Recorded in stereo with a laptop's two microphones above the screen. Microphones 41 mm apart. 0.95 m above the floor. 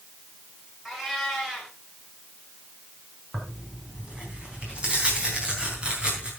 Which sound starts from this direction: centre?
A cat meowing, at 0.8 s.